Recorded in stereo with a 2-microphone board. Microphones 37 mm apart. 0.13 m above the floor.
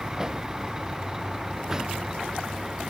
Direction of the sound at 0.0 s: 15° right (ahead or behind).